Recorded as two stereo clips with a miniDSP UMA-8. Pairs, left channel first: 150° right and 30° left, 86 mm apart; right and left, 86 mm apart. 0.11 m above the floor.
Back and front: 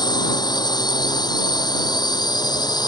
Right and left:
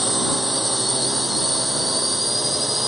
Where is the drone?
Straight behind.